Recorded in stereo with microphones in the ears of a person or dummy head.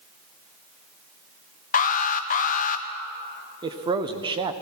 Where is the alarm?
35° left (ahead or behind), 0.6 m.